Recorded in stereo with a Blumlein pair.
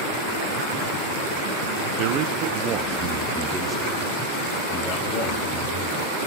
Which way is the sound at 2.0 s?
45° right.